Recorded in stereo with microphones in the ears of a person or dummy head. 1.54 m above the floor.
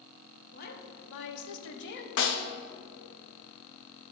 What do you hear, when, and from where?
0.5 s a woman speaking: 55° left (ahead or behind), 1.2 m; by 2.1 s 45° left (ahead or behind), 0.8 m
2.2 s a snare drum: 65° left (ahead or behind), 0.6 m